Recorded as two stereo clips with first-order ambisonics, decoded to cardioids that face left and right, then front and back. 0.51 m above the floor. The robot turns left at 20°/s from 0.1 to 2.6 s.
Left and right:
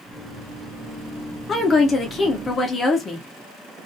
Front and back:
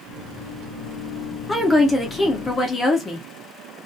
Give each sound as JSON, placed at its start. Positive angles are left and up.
{"t": 1.5, "sound": "a woman speaking", "azimuth_deg": 65, "distance_m": 0.7}